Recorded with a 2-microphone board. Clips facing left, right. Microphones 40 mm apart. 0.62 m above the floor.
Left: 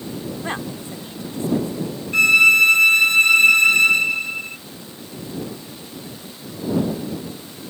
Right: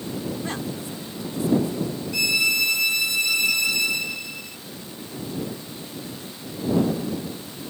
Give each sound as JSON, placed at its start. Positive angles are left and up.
{"t": 0.4, "sound": "a woman speaking", "side_deg": 30}
{"t": 2.1, "sound": "a violin", "side_deg": 45}